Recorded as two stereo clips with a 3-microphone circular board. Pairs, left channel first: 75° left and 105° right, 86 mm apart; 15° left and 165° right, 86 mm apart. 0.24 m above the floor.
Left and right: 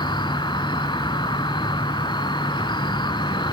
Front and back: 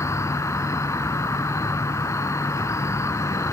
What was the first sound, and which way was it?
An insect, 65° left.